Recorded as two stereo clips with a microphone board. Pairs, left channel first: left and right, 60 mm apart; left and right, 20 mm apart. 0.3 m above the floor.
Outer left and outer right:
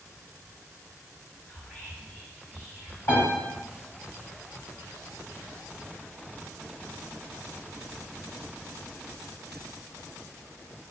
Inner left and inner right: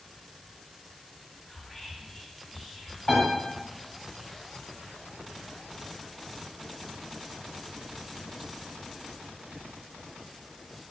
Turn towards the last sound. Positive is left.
turn(degrees=50)  # may be behind; listen again after turning